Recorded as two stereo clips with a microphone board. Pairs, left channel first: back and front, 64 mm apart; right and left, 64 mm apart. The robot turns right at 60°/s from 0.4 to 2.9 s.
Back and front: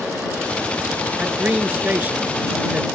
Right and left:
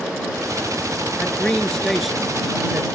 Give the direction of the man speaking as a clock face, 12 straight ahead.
2 o'clock.